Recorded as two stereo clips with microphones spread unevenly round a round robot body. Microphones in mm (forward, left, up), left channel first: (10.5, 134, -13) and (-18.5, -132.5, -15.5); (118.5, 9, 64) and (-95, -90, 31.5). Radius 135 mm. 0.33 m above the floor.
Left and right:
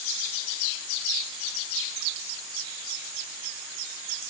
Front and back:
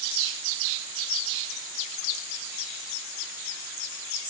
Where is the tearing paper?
I don't hear tearing paper.